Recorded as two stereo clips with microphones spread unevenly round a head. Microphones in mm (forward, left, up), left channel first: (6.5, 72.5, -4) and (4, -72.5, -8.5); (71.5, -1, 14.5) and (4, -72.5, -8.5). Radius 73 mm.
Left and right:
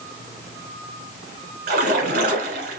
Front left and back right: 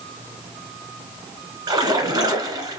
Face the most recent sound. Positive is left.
turn(degrees=-80)